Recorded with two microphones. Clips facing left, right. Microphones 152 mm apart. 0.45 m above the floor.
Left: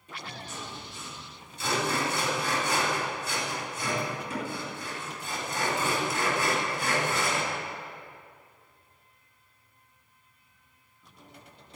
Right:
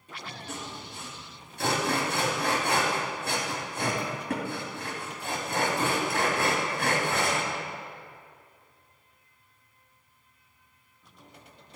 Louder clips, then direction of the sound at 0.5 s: Right 2 dB; 65° right (ahead or behind).